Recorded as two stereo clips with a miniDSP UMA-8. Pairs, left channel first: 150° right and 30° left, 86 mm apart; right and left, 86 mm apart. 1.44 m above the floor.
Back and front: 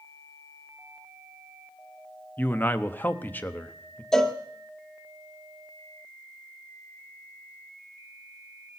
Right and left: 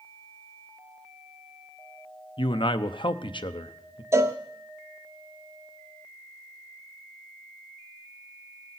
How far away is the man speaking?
About 0.7 m.